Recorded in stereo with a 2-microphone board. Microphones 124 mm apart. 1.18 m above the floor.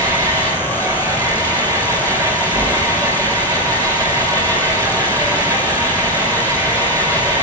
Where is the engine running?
25° right (ahead or behind), 4 m.